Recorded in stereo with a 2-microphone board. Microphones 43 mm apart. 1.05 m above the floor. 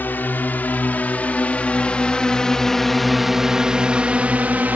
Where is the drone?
50° left (ahead or behind); by 4.8 s 45° right (ahead or behind).